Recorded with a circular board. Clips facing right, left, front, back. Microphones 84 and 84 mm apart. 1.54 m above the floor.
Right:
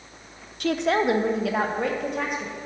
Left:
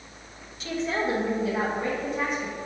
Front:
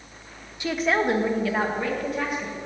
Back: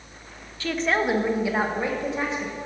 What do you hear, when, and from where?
0.6 s a woman speaking: 70° right, 0.6 m; by 2.6 s 115° right, 1.8 m